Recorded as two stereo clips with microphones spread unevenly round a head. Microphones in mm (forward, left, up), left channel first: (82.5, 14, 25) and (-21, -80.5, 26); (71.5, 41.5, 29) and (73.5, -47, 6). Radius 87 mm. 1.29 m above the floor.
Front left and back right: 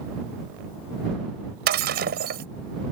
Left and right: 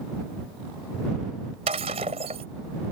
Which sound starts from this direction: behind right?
Breaking glass, at 1.7 s.